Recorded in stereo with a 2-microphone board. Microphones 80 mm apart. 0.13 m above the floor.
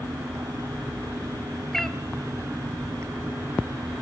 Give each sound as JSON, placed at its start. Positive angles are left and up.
{"t": 1.7, "sound": "a cat meowing", "side_deg": 5, "distance_m": 1.0}